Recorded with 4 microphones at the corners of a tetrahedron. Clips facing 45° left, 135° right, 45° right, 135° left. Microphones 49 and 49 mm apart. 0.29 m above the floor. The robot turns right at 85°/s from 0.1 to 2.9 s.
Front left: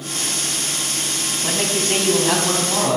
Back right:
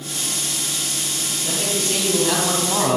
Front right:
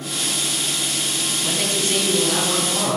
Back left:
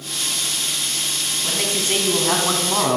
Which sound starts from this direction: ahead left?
A man speaking, at 1.4 s.